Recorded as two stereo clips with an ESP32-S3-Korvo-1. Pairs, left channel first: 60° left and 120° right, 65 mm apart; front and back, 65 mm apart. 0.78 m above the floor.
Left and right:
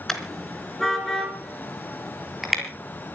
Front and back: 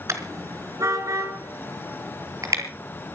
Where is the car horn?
145° left, 3.5 m; by 2.6 s 155° left, 5.5 m.